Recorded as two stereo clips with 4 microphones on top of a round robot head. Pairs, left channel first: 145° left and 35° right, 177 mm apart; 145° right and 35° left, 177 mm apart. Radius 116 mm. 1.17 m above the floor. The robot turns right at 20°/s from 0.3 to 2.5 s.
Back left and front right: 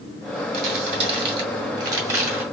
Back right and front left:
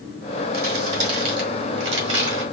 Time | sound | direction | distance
0.5 | crumpling | straight ahead | 2 m